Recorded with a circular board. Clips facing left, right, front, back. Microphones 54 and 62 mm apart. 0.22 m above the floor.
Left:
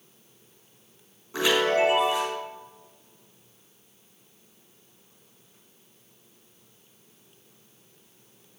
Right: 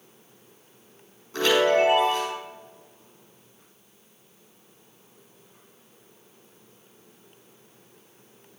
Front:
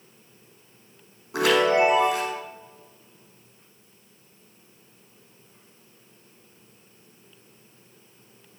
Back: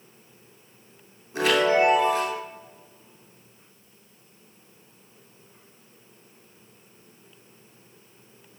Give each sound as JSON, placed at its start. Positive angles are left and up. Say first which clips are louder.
{"t": 1.3, "sound": "a chime", "louder": "right 2 dB, front 1 dB", "azimuth_deg": 15, "distance_m": 5.5}